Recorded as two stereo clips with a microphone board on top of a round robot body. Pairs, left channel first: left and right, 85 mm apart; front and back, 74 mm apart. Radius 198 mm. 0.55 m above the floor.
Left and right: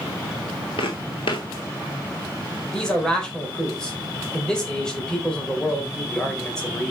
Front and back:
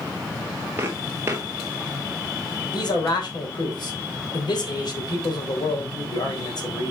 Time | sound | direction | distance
0.8 | footsteps | 115° left | 0.8 m
2.7 | a man speaking | 10° left | 4 m